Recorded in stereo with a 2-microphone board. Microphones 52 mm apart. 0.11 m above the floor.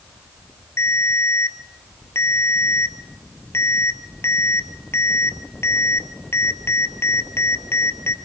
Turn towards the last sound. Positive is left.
turn(degrees=55)  # may be behind; listen again after turning